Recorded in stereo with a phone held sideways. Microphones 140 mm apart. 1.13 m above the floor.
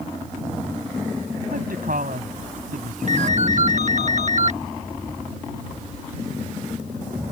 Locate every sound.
1.5 s a woman speaking: 85° right
3.1 s a ringtone: 55° right (ahead or behind)